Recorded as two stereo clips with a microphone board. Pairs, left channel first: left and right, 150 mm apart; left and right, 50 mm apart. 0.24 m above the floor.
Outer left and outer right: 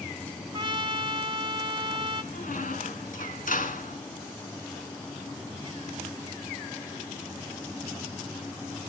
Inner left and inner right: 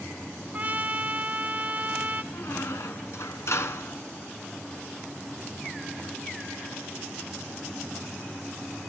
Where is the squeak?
65° left (ahead or behind), 1.6 m.